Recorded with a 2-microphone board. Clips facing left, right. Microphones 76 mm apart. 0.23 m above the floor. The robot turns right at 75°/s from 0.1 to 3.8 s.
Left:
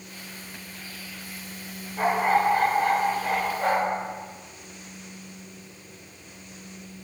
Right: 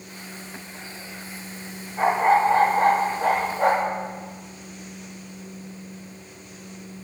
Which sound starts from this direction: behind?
A dog barking, at 2.0 s.